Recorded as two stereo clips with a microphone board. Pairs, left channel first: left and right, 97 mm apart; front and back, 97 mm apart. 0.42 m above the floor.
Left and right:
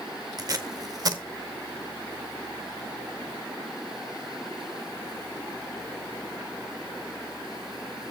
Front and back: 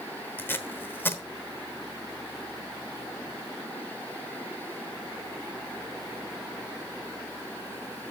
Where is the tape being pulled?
60° right, 0.9 m.